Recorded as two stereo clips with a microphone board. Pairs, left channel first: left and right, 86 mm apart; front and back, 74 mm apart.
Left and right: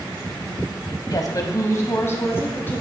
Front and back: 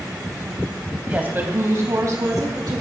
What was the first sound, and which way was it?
A woman speaking, 115° left.